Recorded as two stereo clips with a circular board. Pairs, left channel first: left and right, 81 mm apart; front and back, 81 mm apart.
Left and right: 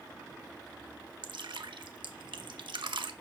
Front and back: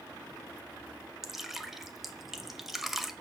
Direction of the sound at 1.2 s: 95° right.